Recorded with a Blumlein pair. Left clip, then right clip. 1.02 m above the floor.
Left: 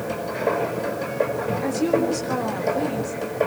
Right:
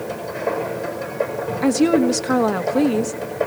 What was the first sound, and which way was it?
A machine running, 10° left.